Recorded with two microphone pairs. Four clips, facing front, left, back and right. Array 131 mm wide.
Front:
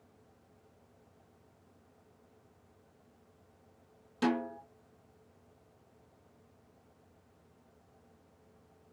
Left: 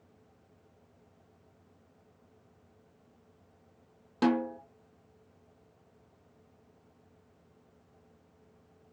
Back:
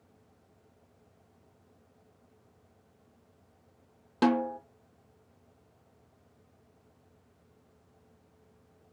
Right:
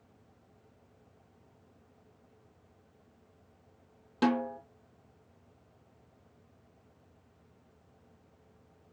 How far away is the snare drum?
About 0.8 m.